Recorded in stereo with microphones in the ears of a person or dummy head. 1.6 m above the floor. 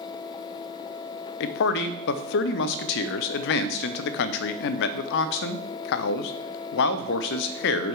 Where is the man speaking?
65° left (ahead or behind), 0.6 m.